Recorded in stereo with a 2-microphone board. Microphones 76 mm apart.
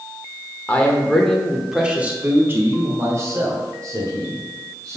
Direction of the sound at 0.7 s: 20° left (ahead or behind).